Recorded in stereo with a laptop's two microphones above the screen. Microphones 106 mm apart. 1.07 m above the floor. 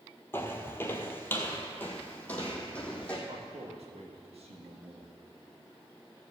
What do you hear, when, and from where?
0.3 s footsteps: 20° left (ahead or behind), 1.1 m; by 3.2 s 10° left (ahead or behind), 1.9 m
3.3 s a man speaking: 75° right (ahead or behind), 1.6 m